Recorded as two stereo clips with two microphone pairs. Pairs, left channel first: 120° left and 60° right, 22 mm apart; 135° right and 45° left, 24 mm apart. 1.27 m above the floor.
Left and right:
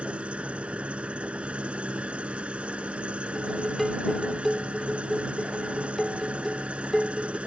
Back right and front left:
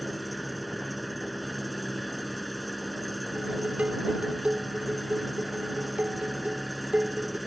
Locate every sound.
0.0 s an engine running: 40° right
3.4 s dishes clattering: 30° left